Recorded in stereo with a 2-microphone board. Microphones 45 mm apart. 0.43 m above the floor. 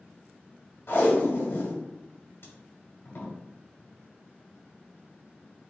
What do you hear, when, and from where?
0.9 s tape being pulled: 65° left (ahead or behind), 1.4 m